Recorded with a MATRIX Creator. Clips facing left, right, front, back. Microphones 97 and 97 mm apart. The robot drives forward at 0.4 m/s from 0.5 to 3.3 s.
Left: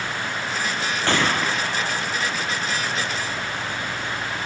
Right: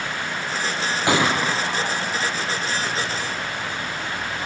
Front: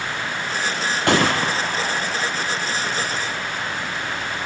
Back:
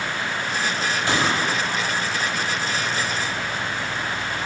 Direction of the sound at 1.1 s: 15° right.